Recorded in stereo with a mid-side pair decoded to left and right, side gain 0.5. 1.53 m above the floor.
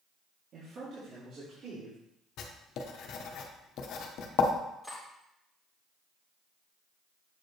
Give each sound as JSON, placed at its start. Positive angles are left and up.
{"t": 0.5, "sound": "a man speaking", "azimuth_deg": -55, "distance_m": 2.5}
{"t": 2.4, "sound": "writing", "azimuth_deg": 65, "distance_m": 1.0}
{"t": 4.8, "sound": "cutlery clinking", "azimuth_deg": -5, "distance_m": 2.5}